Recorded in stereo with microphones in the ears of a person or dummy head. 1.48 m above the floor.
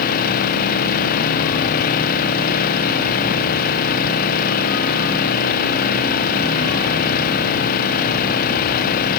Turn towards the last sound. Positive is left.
turn(degrees=50)  # may be behind; listen again after turning